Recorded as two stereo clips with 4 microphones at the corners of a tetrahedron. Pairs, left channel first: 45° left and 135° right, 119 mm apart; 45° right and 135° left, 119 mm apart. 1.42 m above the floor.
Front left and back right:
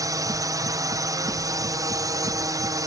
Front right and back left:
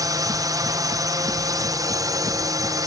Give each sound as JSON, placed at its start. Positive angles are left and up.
{"t": 0.0, "sound": "a drone", "azimuth_deg": 180}